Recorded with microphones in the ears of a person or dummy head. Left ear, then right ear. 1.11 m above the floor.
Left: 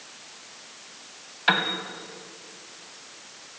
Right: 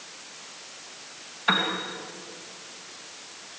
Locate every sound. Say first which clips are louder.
1.5 s a piano: left 1 dB; 60° left (ahead or behind), 3 m